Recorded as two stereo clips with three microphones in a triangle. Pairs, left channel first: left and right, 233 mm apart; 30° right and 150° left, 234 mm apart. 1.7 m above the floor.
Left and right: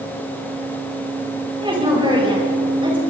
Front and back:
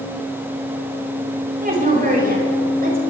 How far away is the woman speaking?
About 9.5 m.